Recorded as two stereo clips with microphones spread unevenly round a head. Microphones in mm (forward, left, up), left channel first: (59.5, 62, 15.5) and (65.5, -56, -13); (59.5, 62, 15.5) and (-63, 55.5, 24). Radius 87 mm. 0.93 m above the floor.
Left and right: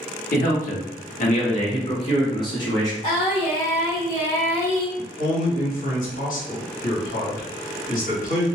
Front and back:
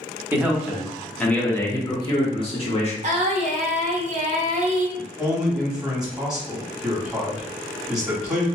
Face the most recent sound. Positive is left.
turn(degrees=105)